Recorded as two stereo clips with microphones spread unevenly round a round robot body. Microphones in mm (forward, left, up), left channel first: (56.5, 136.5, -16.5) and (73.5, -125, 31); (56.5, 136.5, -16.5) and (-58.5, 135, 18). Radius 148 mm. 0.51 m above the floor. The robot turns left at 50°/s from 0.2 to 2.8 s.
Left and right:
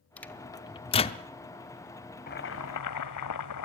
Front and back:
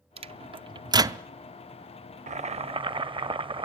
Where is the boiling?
155° left, 1.0 m; by 3.7 s 130° left, 1.0 m.